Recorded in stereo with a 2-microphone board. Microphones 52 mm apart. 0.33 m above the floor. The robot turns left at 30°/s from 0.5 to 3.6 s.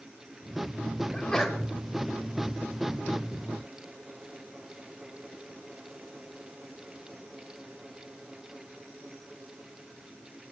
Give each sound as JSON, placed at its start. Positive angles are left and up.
{"t": 1.1, "sound": "a sneeze", "side_deg": 15, "distance_m": 1.0}